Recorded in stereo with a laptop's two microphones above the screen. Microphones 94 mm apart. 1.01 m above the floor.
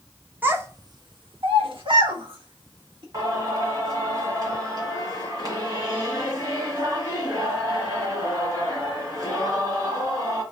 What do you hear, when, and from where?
0.4 s a child speaking: 20° right (ahead or behind), 0.6 m; by 3.0 s 65° right (ahead or behind), 1.5 m
3.1 s singing: 50° right (ahead or behind), 1.3 m